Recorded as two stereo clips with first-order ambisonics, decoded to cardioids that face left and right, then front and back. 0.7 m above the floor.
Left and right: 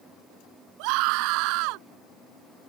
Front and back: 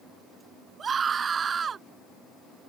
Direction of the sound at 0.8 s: 110° right.